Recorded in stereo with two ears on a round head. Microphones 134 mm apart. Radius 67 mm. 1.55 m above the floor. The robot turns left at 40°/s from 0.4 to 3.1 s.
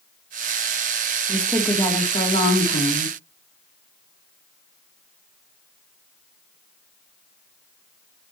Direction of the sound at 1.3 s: Straight behind.